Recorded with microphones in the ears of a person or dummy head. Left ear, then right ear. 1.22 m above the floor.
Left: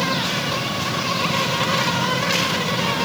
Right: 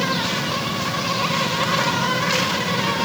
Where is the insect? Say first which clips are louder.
Even; centre (ahead or behind), 0.9 m.